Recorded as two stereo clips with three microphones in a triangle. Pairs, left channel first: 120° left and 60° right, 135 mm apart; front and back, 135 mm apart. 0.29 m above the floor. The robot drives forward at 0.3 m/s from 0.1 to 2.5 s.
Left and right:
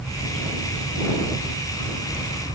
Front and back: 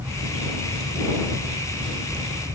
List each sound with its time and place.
Only background noise.